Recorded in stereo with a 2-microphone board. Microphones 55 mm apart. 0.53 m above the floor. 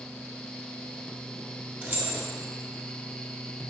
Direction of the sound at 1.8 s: 40° right (ahead or behind).